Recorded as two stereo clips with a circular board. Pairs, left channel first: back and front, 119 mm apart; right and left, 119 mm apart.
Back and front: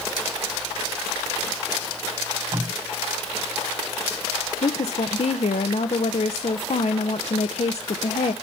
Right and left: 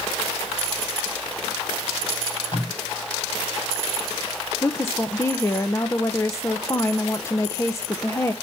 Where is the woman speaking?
155° right, 0.6 m.